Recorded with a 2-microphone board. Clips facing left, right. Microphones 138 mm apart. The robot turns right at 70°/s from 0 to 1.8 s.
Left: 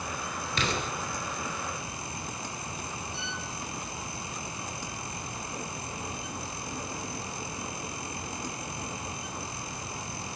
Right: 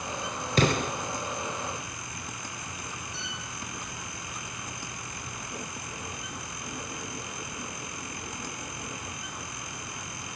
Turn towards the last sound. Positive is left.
turn(degrees=55)  # may be behind; listen again after turning